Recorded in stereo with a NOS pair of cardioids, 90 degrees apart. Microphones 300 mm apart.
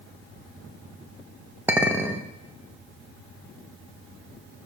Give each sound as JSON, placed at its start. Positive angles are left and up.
{"t": 1.7, "sound": "a clink", "azimuth_deg": -5, "distance_m": 0.9}